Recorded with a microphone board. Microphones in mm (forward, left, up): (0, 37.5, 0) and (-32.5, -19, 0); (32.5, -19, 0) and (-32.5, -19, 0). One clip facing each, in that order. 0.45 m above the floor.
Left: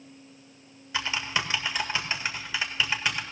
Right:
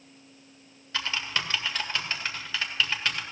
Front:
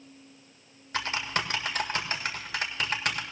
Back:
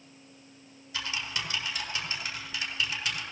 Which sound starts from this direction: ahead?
Typing on a keyboard, at 0.9 s.